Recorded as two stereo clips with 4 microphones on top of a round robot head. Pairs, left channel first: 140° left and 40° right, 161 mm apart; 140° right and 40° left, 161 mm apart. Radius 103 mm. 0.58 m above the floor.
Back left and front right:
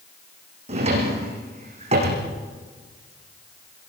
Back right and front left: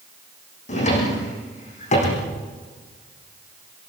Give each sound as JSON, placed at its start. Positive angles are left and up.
{"t": 0.7, "sound": "a drawer", "azimuth_deg": -95, "distance_m": 8.0}